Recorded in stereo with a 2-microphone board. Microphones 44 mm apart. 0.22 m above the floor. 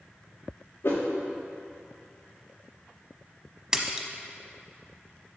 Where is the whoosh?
60° left (ahead or behind), 3.5 m.